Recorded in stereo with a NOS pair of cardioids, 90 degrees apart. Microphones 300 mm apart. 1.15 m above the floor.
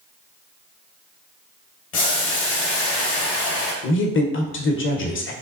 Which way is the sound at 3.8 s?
40° left.